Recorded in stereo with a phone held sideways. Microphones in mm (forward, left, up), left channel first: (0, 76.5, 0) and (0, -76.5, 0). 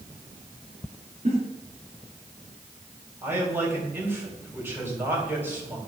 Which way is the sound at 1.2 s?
50° right (ahead or behind).